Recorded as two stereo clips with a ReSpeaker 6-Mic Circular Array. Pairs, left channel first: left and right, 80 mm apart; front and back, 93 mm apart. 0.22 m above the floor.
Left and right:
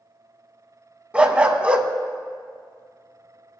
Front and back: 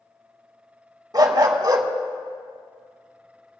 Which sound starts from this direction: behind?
A dog barking, at 1.1 s.